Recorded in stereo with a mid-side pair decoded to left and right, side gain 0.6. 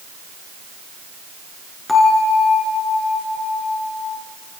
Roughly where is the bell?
Ahead.